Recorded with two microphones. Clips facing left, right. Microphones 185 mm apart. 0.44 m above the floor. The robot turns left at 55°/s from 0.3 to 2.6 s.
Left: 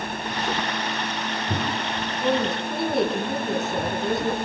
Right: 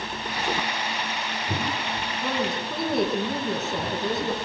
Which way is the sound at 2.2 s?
20° left (ahead or behind).